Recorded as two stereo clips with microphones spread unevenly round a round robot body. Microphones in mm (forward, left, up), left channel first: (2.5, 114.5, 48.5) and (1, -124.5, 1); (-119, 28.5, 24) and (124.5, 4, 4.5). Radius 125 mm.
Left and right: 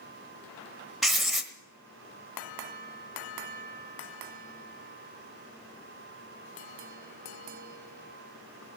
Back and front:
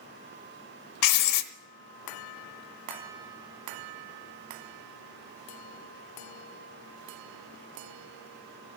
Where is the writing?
175° left, 1.0 m.